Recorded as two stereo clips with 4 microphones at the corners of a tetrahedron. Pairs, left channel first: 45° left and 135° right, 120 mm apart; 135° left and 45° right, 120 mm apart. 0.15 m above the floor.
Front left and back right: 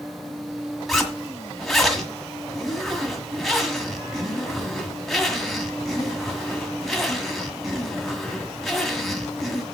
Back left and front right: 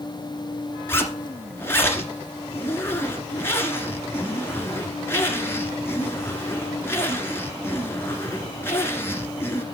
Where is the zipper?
135° left, 1.5 m.